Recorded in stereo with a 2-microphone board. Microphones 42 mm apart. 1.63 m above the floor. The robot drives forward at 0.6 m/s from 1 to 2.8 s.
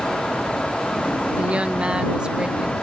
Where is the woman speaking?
35° right (ahead or behind); by 2.7 s 25° right (ahead or behind).